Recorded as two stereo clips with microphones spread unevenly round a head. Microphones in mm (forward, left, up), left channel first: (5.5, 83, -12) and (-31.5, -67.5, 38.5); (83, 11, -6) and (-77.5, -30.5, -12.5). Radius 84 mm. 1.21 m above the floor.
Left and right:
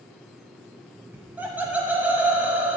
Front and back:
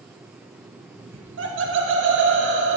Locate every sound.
1.1 s laughter: 175° left, 0.9 m